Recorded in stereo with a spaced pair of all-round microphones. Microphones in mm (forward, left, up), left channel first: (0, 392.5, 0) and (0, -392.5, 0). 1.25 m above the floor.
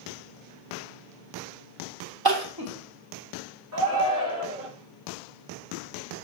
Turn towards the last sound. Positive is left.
turn(degrees=-5)  # may be behind; listen again after turning